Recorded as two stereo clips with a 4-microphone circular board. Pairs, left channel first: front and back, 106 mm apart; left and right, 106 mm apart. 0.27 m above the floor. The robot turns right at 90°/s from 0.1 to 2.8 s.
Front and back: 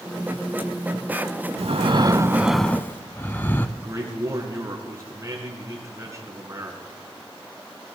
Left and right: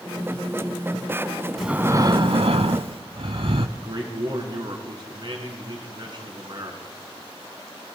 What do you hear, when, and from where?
1.6 s breathing: straight behind, 0.5 m; by 3.7 s 70° right, 0.5 m
3.8 s a man speaking: 125° right, 2.5 m